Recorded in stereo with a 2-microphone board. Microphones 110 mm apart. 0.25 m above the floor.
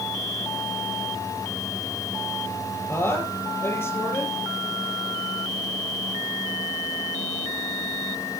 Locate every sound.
2.9 s a woman speaking: 20° left (ahead or behind), 6.5 m